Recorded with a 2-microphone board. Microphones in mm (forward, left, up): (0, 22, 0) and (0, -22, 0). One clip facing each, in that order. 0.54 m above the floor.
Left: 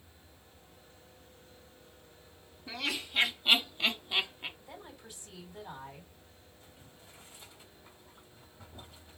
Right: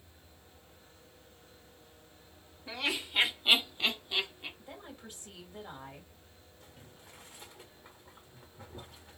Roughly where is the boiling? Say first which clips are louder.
Right 3 dB; right.